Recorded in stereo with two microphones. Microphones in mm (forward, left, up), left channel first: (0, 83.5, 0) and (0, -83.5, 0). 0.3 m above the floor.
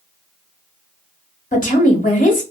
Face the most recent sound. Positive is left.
turn(degrees=45)  # may be behind; listen again after turning